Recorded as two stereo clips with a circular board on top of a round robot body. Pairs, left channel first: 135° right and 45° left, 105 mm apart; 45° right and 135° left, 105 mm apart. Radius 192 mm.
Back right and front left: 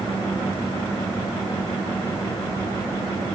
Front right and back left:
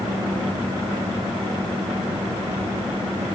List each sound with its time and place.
Only background noise.